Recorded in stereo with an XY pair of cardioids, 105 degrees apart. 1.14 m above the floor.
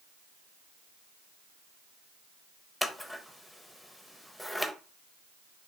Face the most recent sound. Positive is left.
turn(degrees=5)